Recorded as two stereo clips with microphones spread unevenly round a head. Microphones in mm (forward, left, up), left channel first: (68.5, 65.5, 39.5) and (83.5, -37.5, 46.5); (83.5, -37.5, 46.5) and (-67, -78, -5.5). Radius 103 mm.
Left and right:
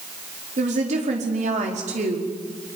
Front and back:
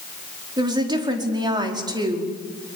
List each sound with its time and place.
0.6 s a woman speaking: 100° right, 5 m